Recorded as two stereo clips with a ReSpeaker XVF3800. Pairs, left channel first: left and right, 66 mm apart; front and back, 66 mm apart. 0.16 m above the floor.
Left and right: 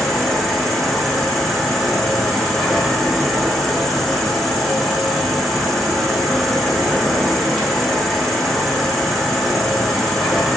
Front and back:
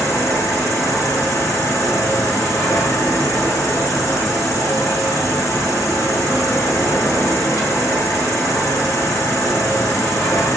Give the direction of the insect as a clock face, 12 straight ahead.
12 o'clock.